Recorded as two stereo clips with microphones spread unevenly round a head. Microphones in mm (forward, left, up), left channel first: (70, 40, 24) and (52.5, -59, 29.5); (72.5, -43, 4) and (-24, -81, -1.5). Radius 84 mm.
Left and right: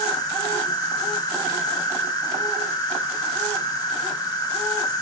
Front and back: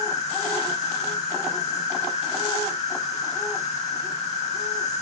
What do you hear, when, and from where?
0.0 s an insect: 30° left, 5.5 m